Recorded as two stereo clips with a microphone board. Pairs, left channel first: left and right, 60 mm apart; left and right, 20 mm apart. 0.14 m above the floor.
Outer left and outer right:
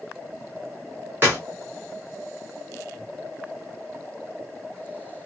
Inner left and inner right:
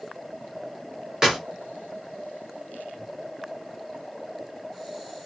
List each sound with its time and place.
1.2 s a clap: 35° right (ahead or behind), 1.5 m